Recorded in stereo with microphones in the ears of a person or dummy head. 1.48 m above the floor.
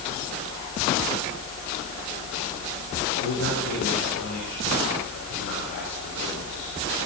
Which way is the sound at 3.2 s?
80° left.